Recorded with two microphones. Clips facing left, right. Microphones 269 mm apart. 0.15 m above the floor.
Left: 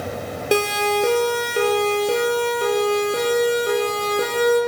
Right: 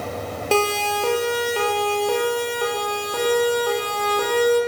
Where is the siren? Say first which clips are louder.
Left 2 dB; 15° left (ahead or behind), 4.5 m; by 4.6 s 25° left (ahead or behind), 6.5 m.